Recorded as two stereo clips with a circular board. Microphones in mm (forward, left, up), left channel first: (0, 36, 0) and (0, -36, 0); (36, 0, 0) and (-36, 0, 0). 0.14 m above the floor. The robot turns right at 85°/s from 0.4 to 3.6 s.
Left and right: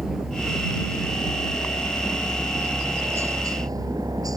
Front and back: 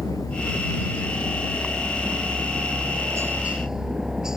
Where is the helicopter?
10° right; by 4.4 s 100° right.